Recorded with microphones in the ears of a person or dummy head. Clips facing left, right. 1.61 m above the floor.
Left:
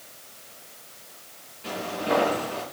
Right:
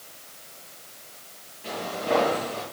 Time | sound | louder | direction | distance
1.6 | footsteps | even | 20° left (ahead or behind) | 8 m